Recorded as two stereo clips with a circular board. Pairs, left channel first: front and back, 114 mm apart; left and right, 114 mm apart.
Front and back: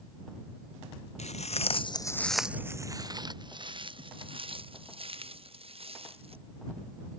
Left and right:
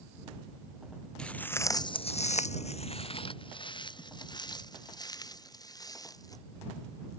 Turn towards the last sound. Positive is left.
turn(degrees=150)